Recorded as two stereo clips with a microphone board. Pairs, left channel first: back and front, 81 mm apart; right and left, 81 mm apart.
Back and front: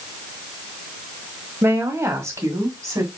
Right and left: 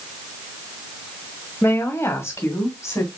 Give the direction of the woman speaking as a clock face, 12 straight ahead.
1 o'clock.